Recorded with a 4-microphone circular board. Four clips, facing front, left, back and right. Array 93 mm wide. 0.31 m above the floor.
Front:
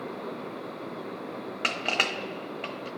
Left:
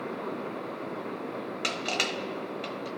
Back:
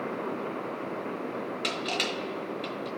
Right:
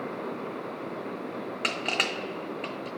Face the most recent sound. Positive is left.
turn(degrees=-20)